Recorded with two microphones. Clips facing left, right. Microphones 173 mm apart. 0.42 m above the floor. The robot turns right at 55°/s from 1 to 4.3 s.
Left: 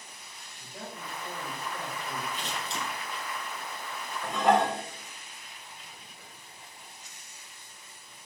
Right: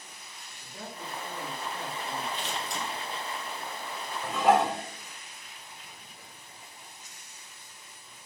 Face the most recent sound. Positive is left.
turn(degrees=-5)  # may be behind; listen again after turning